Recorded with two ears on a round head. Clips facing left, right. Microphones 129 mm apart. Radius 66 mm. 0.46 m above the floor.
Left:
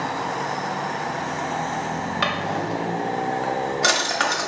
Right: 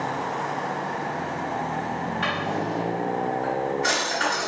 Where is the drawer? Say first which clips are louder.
Left 2 dB; 80° left, 0.9 m.